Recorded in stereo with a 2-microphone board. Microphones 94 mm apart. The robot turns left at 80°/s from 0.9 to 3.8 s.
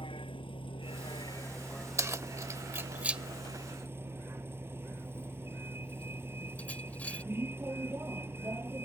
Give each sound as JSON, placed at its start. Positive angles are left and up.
{"t": 0.0, "sound": "a vehicle", "azimuth_deg": 80}
{"t": 2.0, "sound": "keys jangling", "side_deg": -30}